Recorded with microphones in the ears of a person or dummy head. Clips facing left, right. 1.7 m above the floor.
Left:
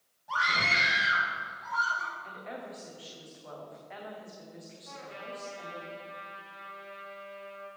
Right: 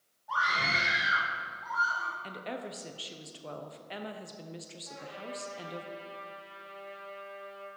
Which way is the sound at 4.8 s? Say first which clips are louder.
Right 1 dB; 35° left (ahead or behind).